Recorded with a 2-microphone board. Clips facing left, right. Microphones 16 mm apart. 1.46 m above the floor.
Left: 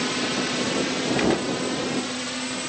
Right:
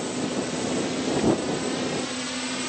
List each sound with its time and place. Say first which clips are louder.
0.0 s a drone: left 3 dB; 45° left (ahead or behind); by 2.7 s centre (ahead or behind)
1.2 s a gunshot: even; 50° left (ahead or behind)